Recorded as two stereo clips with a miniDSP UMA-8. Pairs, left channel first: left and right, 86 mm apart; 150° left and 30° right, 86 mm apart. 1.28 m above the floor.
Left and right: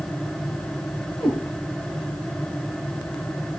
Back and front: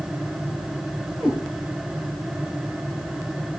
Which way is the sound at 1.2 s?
75° left.